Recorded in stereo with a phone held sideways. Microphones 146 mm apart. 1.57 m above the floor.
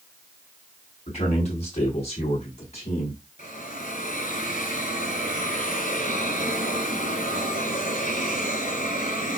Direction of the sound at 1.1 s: 50° left (ahead or behind).